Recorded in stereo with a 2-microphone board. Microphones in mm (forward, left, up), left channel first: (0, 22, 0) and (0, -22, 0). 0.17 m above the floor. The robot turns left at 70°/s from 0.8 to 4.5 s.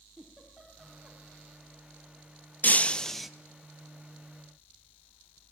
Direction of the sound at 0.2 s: 5° right (ahead or behind).